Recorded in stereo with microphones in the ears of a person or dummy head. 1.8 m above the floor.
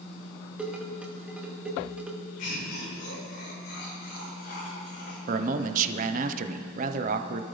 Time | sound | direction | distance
0.6 | dishes clattering | 10° right (ahead or behind) | 2.0 m
2.4 | laughter | 50° left (ahead or behind) | 7.5 m
5.3 | a man speaking | 50° right (ahead or behind) | 1.0 m